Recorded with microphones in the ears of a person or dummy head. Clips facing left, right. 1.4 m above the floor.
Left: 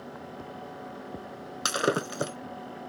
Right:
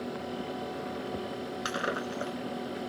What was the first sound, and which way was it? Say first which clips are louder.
Breaking glass: left 8 dB; 55° left (ahead or behind).